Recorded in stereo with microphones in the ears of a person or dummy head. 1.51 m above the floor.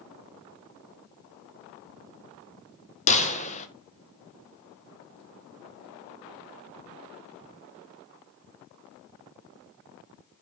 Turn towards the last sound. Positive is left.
turn(degrees=40)  # may be behind; listen again after turning